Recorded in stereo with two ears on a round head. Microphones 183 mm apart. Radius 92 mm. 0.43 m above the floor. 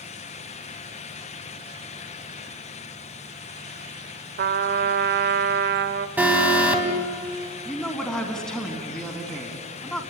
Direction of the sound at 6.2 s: 10° right (ahead or behind).